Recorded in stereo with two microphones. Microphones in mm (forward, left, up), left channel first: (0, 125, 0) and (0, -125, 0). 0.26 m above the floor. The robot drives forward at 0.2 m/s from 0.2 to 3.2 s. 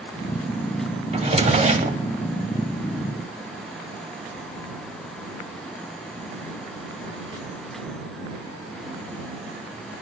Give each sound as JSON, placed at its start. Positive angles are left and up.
{"t": 1.1, "sound": "a drawer", "side_deg": -25, "distance_m": 0.6}